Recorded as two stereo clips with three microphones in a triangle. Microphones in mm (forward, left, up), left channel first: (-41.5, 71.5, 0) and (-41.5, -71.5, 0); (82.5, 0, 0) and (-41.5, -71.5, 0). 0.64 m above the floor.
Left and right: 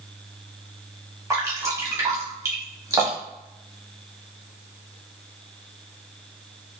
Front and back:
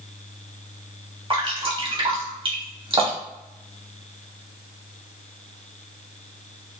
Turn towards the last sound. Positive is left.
turn(degrees=-145)